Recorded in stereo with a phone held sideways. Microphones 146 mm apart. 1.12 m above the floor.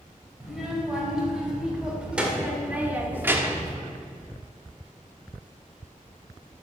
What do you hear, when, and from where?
0.4 s a child speaking: 5° right (ahead or behind), 3 m; by 3.8 s 20° right (ahead or behind), 0.9 m